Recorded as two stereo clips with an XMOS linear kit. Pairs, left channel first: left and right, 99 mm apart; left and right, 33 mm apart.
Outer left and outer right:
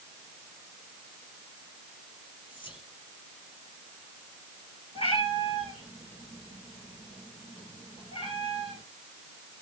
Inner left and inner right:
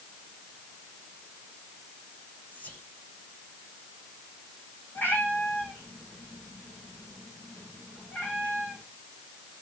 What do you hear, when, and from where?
2.5 s whispering: 55° left (ahead or behind), 5 m
5.0 s a cat meowing: 70° left (ahead or behind), 9 m